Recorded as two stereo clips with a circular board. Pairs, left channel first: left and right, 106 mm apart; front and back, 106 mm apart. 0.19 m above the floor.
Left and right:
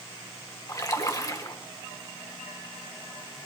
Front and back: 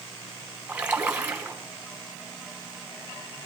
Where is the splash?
110° left, 1.3 m.